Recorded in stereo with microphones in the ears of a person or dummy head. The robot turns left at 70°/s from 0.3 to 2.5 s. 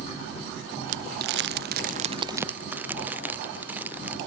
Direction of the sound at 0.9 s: 45° right (ahead or behind).